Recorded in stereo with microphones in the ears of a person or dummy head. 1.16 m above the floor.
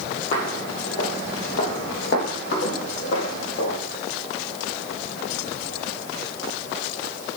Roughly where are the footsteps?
Left.